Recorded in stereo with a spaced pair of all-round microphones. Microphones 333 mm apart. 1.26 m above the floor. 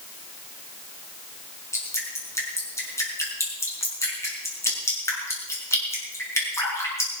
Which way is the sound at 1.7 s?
10° left (ahead or behind).